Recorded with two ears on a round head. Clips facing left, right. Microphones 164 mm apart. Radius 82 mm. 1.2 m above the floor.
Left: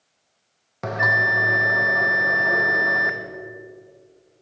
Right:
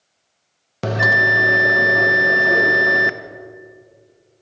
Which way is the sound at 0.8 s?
40° right (ahead or behind).